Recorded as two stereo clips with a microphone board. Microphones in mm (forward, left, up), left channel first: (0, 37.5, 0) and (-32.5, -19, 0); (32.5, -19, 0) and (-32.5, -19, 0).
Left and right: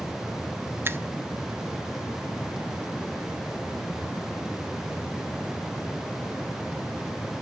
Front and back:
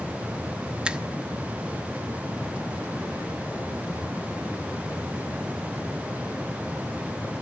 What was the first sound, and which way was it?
A finger snap, 115° right.